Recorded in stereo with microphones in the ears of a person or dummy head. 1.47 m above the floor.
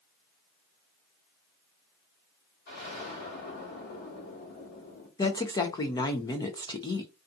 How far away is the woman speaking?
About 0.6 m.